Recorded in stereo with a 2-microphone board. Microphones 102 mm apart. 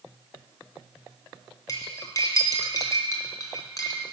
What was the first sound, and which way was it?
Cutlery clinking, 35° left (ahead or behind).